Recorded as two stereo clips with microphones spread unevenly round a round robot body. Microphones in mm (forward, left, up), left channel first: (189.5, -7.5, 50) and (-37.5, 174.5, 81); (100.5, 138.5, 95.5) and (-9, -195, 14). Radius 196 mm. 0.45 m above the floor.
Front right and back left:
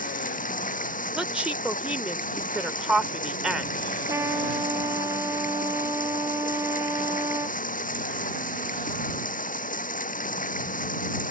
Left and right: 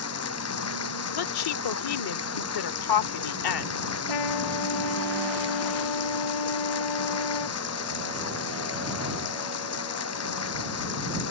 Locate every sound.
0.0 s running water: 25° left
1.1 s a woman speaking: 50° left
4.1 s a trumpet: 60° left